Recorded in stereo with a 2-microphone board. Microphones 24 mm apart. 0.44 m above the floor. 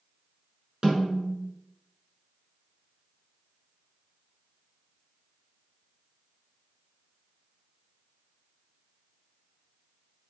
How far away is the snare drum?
About 1.5 m.